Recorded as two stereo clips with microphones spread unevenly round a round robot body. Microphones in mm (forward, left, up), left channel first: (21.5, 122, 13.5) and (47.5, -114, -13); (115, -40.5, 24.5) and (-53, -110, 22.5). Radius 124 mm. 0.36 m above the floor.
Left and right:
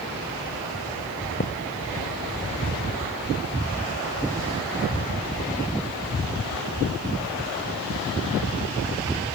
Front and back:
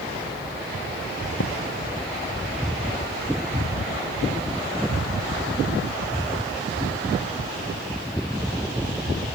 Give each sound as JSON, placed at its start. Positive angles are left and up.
{"t": 1.4, "sound": "a thud", "azimuth_deg": 45}